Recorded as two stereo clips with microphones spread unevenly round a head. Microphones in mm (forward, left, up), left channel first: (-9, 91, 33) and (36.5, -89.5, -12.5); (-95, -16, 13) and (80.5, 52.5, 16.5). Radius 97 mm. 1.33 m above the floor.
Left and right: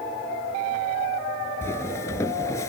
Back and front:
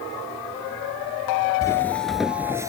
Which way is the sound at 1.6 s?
140° left.